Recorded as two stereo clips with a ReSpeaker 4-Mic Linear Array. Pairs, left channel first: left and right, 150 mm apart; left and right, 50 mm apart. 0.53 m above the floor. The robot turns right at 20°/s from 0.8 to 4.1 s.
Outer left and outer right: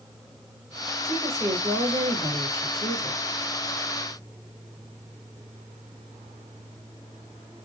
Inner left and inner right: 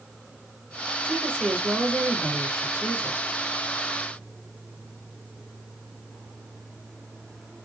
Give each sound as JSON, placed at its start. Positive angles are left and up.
{"t": 1.0, "sound": "a woman speaking", "azimuth_deg": -160, "distance_m": 1.6}